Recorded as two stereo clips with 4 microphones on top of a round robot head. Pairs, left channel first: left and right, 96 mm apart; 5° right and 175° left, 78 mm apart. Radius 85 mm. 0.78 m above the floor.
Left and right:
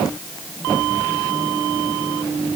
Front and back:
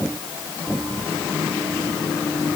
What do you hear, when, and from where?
Only background noise.